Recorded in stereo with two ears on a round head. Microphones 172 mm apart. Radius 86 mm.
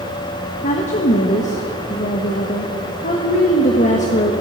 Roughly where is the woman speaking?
Left.